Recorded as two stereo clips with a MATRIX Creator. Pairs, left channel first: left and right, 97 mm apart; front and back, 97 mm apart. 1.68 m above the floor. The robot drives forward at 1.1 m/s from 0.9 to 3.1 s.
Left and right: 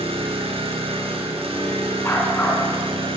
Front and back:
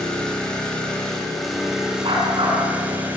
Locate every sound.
0.0 s an engine running: 85° right, 5.5 m; by 3.2 s 110° right, 5.5 m
2.0 s a dog barking: 155° left, 8.5 m